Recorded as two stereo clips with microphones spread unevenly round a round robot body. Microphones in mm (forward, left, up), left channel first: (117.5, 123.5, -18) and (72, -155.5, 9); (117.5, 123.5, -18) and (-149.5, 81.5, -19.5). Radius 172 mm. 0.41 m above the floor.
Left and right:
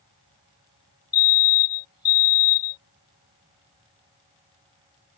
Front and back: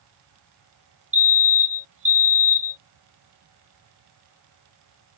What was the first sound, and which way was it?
A fire alarm, 145° left.